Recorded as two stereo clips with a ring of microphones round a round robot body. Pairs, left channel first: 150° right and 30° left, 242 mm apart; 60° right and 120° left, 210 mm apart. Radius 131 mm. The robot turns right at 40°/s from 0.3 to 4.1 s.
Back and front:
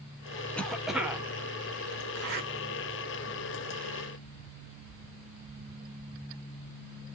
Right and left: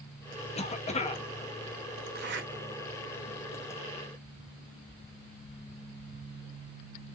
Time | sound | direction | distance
0.6 | a cough | 70° right | 0.9 m
2.1 | a zipper | 75° left | 1.1 m